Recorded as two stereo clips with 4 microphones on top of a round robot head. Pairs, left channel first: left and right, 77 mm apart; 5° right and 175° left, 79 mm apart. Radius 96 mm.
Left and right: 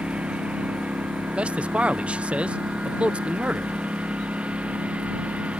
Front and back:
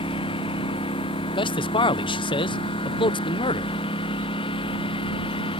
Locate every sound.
0.0 s a lawn mower: 10° right
1.4 s a man speaking: 10° right